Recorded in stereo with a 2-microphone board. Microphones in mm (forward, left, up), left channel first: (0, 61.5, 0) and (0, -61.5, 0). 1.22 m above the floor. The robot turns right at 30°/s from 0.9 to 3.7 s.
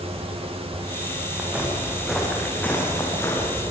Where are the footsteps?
15° right (ahead or behind), 4.5 m; by 3.7 s 35° left (ahead or behind), 4.5 m.